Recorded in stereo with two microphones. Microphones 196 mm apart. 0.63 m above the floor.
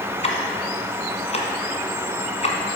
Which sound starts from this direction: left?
Ticking, at 0.2 s.